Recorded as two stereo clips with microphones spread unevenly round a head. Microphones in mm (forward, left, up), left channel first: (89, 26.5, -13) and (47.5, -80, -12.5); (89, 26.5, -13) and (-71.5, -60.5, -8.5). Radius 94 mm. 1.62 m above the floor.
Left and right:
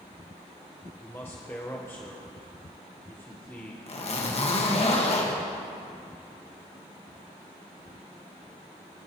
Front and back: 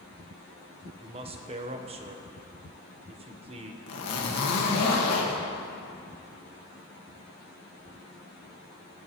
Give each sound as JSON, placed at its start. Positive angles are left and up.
{"t": 1.0, "sound": "a man speaking", "azimuth_deg": 145, "distance_m": 1.0}
{"t": 3.9, "sound": "a zipper", "azimuth_deg": 40, "distance_m": 1.7}